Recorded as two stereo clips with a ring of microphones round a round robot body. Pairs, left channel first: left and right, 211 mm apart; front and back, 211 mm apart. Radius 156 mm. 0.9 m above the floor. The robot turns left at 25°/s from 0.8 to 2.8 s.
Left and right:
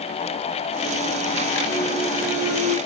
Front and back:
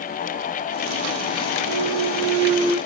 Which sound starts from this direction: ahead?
A clunk, at 1.7 s.